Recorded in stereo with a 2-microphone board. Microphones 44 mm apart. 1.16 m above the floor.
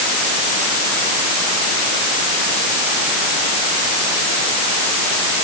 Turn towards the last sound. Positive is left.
No sound to turn to.